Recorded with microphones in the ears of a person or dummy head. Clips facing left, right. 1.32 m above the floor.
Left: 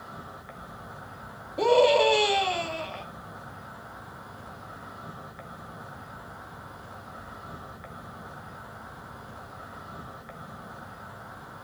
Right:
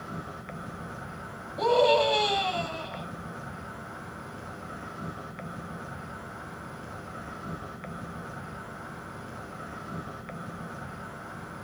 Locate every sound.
0.0 s an insect: 40° right (ahead or behind), 0.9 m
1.6 s a scream: 30° left (ahead or behind), 2.5 m